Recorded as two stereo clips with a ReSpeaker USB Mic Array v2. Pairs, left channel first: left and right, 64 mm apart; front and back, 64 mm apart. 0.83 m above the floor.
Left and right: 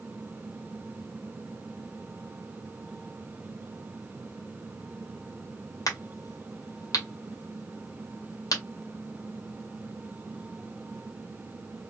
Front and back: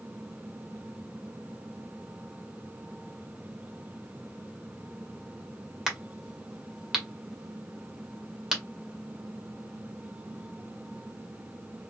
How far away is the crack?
About 1.4 m.